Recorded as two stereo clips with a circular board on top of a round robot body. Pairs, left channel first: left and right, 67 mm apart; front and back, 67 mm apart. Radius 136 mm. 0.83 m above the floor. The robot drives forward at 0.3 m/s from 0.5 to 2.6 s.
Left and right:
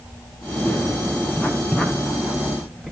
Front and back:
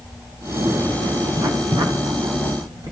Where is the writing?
160° left, 2.0 m; by 2.9 s 165° left, 2.5 m.